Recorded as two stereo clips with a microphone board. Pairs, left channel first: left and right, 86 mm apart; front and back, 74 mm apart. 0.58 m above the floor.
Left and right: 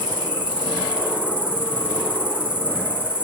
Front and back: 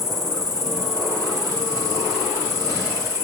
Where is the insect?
160° right, 2.5 m.